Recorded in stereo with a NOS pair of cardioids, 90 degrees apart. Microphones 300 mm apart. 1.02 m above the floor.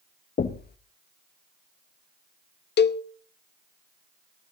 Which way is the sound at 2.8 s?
35° left.